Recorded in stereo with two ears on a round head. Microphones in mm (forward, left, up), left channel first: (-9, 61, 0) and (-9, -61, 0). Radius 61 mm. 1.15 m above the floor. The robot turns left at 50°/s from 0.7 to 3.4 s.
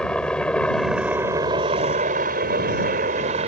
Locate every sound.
0.0 s a helicopter: 5° left (ahead or behind); by 3.5 s 55° right (ahead or behind)